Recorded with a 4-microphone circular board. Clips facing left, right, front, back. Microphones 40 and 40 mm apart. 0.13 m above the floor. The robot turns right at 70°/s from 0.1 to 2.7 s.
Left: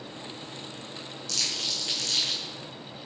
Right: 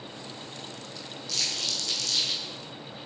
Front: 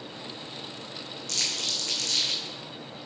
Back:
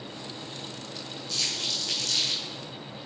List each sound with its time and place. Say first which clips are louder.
1.3 s crumpling: even, even; 10° right, 3 m; by 2.4 s 70° left, 3 m